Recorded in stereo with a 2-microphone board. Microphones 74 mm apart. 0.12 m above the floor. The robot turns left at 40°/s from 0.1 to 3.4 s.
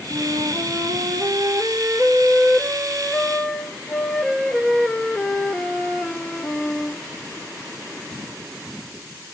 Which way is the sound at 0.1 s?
60° right.